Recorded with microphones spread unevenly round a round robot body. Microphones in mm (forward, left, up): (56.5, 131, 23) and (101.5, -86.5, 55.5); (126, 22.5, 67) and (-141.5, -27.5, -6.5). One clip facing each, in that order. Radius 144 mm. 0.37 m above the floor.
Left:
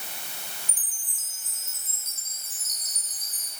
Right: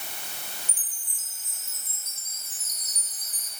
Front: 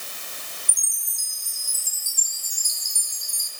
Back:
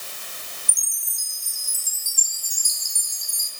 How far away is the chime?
About 4.5 m.